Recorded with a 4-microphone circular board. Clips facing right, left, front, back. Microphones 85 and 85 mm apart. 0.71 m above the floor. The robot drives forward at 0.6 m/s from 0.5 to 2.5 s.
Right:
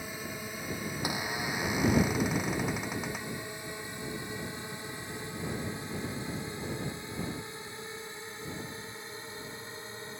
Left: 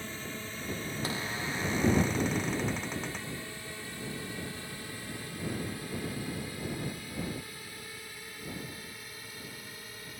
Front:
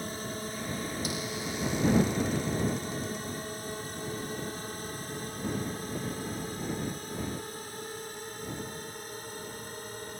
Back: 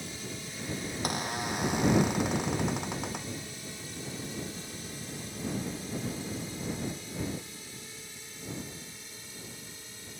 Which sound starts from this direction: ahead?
A drone, at 0.0 s.